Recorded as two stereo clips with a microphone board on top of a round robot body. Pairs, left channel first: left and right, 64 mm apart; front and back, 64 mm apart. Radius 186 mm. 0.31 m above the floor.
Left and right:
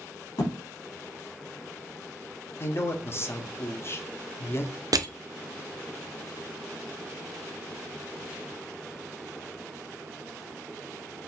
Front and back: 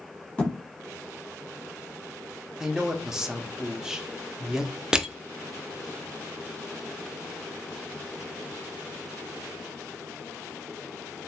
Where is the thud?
70° left, 1.4 m.